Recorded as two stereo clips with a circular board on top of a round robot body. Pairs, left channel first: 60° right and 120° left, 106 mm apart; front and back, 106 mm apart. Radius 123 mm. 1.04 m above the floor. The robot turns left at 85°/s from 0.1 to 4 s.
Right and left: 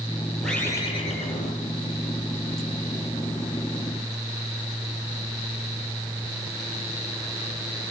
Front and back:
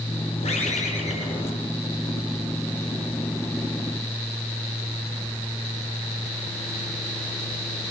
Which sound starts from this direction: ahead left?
A bird, at 0.4 s.